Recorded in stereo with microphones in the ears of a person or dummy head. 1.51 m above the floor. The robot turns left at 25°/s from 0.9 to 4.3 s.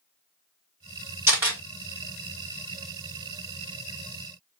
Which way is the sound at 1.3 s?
15° right (ahead or behind).